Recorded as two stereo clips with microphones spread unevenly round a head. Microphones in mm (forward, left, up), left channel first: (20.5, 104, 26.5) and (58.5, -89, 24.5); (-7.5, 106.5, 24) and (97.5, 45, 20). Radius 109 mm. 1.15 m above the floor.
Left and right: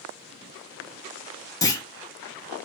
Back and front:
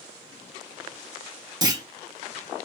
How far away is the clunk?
About 1.6 m.